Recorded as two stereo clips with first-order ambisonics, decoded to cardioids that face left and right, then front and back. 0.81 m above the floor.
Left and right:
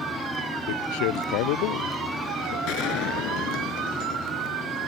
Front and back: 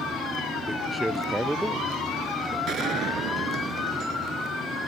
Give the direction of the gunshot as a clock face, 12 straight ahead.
8 o'clock.